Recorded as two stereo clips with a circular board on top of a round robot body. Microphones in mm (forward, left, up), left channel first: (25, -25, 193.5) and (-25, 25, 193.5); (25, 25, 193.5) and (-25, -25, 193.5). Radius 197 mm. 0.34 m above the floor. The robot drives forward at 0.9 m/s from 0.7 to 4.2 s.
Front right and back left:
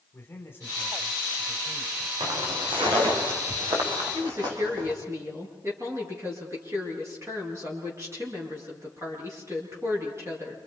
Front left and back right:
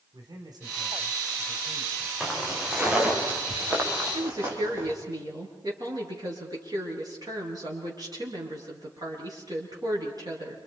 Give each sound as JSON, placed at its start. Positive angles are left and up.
{"t": 0.1, "sound": "a man speaking", "azimuth_deg": -110, "distance_m": 4.0}
{"t": 2.2, "sound": "footsteps", "azimuth_deg": 140, "distance_m": 6.0}
{"t": 4.1, "sound": "a woman speaking", "azimuth_deg": -170, "distance_m": 8.5}